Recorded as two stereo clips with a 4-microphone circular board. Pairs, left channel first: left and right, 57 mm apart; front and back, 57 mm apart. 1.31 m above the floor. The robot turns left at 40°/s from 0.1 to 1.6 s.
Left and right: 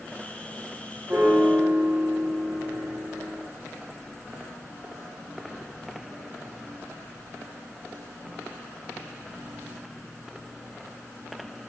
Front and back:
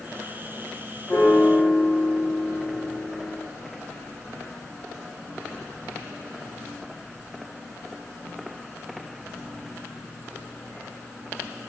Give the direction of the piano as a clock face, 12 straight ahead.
1 o'clock.